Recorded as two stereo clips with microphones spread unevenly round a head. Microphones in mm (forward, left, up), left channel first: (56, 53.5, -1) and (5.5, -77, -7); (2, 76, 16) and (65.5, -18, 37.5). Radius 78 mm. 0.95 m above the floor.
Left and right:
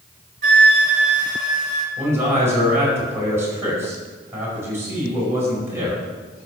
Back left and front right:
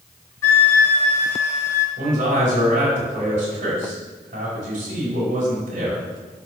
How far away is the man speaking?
About 5 m.